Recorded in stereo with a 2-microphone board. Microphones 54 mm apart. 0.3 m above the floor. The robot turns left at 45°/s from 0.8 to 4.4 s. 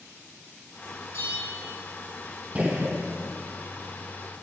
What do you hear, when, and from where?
1.1 s a bell: 70° left (ahead or behind), 6 m; by 1.7 s 50° left (ahead or behind), 6 m
2.5 s a gunshot: 25° right (ahead or behind), 3 m; by 3.0 s 45° right (ahead or behind), 3 m